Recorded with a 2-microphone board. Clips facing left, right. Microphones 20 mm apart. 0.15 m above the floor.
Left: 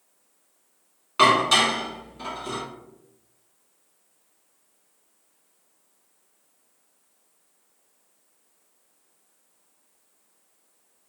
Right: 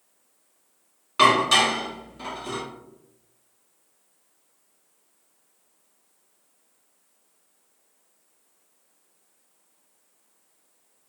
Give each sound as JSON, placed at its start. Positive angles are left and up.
{"t": 1.2, "sound": "dishes clattering", "side_deg": 5, "distance_m": 0.9}